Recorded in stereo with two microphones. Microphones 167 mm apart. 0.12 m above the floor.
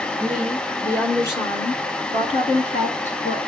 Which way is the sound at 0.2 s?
5° right (ahead or behind).